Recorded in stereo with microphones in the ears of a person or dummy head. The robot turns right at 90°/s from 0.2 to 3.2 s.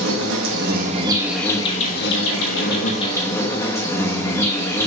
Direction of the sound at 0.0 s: 105° right.